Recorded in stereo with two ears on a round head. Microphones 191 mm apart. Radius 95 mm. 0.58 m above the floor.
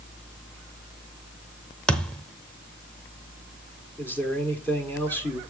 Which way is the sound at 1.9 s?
5° left (ahead or behind).